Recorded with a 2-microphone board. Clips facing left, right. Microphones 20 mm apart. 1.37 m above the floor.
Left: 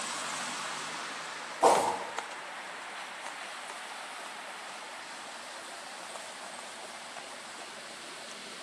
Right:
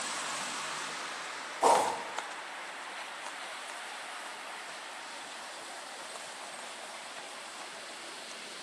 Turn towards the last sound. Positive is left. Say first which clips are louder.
# left 1 dB
turn(degrees=10)  # may be behind; listen again after turning